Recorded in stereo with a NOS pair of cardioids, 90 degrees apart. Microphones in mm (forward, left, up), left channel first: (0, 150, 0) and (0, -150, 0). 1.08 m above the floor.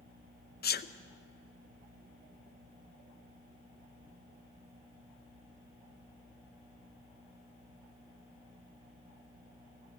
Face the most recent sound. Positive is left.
turn(degrees=30)